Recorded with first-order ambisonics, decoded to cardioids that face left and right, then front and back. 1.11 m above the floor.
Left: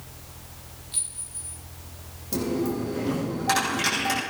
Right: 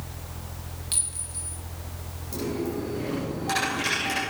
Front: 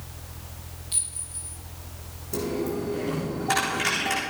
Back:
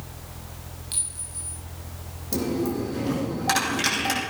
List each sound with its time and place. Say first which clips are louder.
0.9 s a clink: right 3 dB, even; 110° right, 6 m
2.3 s a dropped coin: left 3 dB, back 2 dB; 160° left, 6.5 m